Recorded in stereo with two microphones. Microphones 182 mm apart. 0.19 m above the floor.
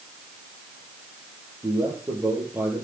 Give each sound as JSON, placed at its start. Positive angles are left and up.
{"t": 1.6, "sound": "a man speaking", "side_deg": -15, "distance_m": 5.5}